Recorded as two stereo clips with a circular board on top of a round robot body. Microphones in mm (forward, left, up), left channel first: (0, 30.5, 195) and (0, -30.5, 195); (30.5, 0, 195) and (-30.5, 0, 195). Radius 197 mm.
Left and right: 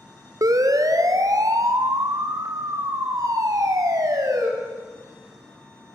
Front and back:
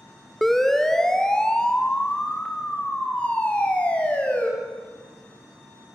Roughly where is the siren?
Right.